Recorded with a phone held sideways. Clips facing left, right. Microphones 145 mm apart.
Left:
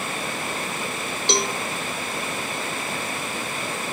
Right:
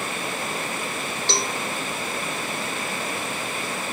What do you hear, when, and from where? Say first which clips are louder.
1.3 s a cowbell: left 4 dB; 20° left (ahead or behind), 0.8 m